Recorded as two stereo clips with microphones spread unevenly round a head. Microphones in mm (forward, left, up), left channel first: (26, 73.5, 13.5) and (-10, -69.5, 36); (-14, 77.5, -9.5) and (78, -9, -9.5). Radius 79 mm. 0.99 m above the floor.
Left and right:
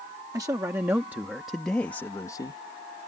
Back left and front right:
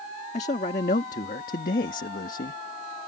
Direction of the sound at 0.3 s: 175° right.